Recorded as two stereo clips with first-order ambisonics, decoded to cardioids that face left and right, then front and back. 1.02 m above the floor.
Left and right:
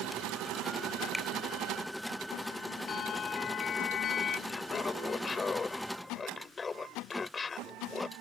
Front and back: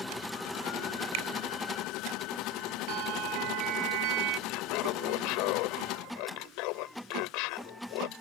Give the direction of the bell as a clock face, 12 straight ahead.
7 o'clock.